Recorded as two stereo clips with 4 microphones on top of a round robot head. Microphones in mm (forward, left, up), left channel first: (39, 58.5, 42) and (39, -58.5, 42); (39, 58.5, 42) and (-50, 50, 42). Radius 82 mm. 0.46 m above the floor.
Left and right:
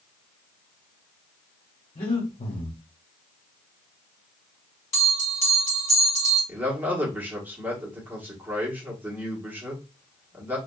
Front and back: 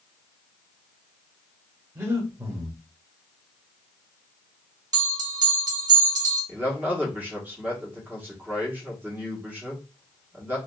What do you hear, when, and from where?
1.9 s breathing: 125° left, 1.2 m
4.9 s a bell: 150° left, 1.7 m
6.5 s a man speaking: 140° right, 1.1 m